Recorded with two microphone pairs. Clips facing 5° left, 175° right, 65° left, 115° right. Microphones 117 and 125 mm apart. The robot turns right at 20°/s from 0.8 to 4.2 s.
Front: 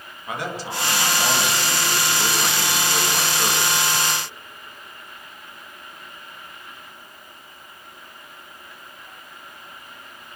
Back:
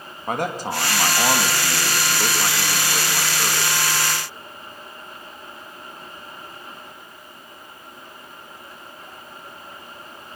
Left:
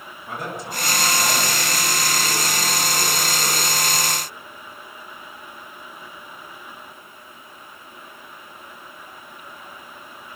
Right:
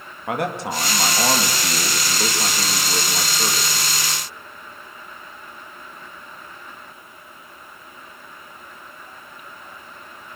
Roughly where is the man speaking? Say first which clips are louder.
Back 4 dB, right 7 dB; behind right.